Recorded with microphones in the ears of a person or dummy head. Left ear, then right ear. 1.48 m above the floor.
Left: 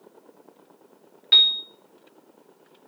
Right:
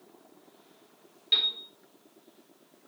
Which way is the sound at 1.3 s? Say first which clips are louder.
Left 10 dB; 45° left (ahead or behind).